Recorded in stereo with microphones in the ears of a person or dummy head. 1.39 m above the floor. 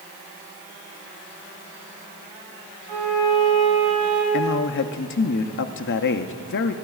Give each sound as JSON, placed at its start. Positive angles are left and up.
{"t": 2.9, "sound": "a violin", "side_deg": -35, "distance_m": 3.0}
{"t": 4.3, "sound": "a man speaking", "side_deg": 60, "distance_m": 0.6}